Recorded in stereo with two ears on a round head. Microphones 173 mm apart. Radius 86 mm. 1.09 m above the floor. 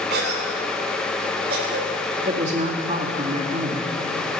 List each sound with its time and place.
0.1 s a cough: 60° right (ahead or behind), 3.5 m
2.2 s a woman speaking: 35° right (ahead or behind), 2 m